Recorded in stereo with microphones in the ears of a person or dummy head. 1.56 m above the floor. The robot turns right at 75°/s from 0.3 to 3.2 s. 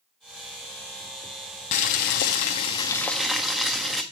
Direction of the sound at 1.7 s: 65° left.